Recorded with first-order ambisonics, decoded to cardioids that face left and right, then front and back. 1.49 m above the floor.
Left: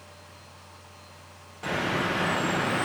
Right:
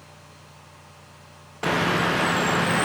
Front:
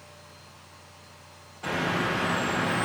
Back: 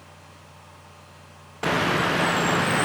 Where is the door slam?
I don't hear a door slam.